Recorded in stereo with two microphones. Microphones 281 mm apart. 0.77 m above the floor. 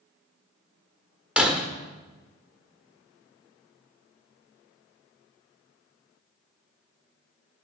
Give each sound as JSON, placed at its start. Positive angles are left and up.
{"t": 1.4, "sound": "breaking glass", "side_deg": -5, "distance_m": 1.1}